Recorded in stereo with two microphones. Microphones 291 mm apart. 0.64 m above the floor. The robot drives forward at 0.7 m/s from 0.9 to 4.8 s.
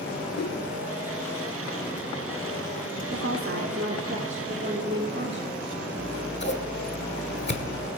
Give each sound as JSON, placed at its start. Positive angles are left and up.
{"t": 0.3, "sound": "a whoosh", "side_deg": 55, "distance_m": 1.6}
{"t": 3.1, "sound": "a woman speaking", "side_deg": -50, "distance_m": 1.3}
{"t": 6.0, "sound": "scissors", "side_deg": 40, "distance_m": 1.2}